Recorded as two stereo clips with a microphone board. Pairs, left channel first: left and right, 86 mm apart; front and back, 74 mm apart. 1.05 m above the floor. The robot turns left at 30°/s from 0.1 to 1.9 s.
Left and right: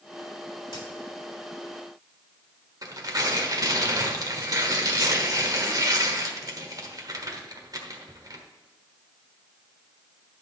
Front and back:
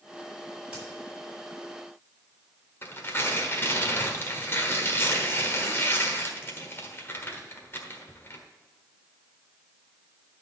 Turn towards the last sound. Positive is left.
turn(degrees=-55)